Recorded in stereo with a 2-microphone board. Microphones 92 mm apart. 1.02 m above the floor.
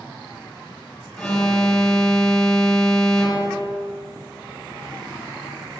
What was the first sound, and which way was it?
An alarm, 5° left (ahead or behind).